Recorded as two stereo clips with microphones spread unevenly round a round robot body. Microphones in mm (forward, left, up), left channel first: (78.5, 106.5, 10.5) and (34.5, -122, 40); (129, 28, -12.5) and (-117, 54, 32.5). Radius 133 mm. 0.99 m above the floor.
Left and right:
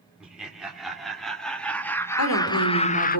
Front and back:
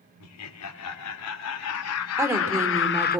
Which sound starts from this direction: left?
A woman speaking, at 2.2 s.